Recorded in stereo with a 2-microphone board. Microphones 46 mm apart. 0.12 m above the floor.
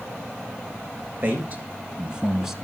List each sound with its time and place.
1.2 s a man speaking: 45° right (ahead or behind), 2.5 m; by 2.5 s 5° right (ahead or behind), 1.6 m